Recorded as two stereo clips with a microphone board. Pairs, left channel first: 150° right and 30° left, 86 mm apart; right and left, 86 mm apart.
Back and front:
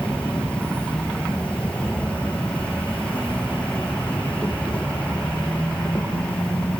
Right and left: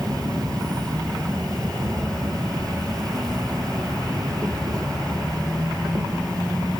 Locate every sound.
0.0 s an insect: 135° left, 5 m